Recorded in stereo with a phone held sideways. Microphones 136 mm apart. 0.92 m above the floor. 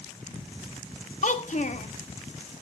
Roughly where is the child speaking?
Left.